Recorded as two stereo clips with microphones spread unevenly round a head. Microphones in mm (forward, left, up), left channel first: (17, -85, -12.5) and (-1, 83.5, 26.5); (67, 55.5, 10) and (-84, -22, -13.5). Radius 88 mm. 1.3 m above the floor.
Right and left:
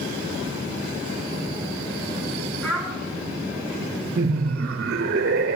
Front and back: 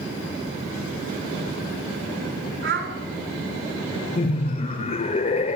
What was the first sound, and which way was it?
A child speaking, 170° right.